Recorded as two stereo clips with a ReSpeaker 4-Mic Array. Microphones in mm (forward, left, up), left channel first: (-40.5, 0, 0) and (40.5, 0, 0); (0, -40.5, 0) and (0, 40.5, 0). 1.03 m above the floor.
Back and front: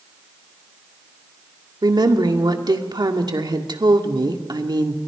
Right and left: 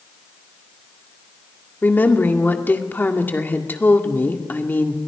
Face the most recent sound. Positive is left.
turn(degrees=-25)